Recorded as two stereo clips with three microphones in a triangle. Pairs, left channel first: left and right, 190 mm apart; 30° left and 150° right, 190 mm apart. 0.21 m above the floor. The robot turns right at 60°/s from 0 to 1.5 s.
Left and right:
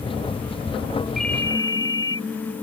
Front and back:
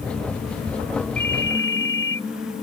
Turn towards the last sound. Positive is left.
turn(degrees=20)